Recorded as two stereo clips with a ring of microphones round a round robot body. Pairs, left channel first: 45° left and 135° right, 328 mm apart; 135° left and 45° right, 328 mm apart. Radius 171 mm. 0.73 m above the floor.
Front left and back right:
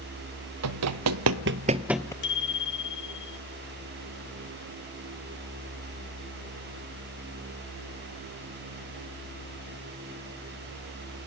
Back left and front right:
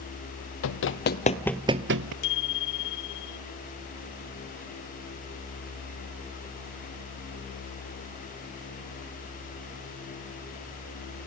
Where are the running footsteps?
175° right, 1.6 m; by 2.1 s 35° right, 0.9 m.